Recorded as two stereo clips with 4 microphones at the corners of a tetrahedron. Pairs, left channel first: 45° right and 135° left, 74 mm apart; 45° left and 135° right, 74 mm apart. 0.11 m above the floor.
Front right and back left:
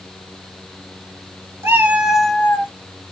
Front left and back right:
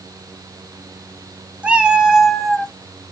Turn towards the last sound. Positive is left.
turn(degrees=-30)